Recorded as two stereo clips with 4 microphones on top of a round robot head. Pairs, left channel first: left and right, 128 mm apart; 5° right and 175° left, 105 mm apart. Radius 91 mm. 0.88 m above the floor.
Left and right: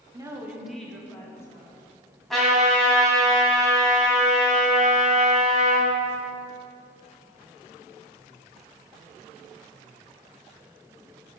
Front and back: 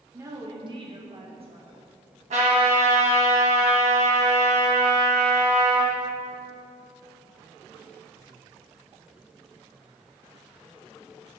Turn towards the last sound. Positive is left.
turn(degrees=180)